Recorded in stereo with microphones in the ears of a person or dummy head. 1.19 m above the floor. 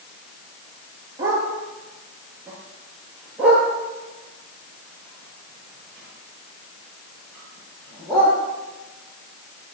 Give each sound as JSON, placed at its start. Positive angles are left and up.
{"t": 1.2, "sound": "a dog barking", "side_deg": -15, "distance_m": 8.5}